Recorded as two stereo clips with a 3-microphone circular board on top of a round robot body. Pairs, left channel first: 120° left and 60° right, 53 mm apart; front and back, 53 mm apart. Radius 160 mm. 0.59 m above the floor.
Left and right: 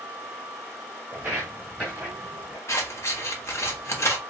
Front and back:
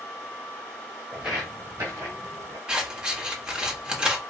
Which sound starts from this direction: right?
Footsteps, at 1.1 s.